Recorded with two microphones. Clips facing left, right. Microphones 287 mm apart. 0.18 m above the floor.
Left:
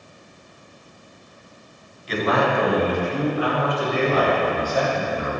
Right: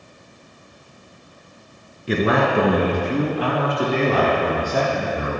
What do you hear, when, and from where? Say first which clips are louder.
2.1 s a man speaking: right 3 dB; 60° right (ahead or behind), 2 m; by 5.3 s 80° right, 7 m